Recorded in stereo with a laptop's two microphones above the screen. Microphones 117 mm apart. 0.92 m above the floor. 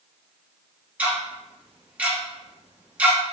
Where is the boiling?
No boiling in this recording.